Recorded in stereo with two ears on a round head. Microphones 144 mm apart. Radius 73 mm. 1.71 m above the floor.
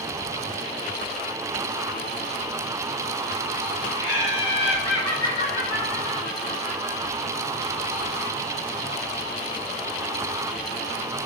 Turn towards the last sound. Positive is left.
turn(degrees=60)  # may be behind; listen again after turning